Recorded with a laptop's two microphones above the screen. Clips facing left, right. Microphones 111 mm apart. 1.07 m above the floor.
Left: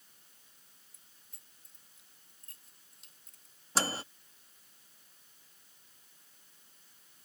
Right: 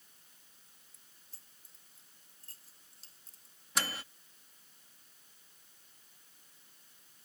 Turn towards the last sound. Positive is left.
turn(degrees=35)  # may be behind; listen again after turning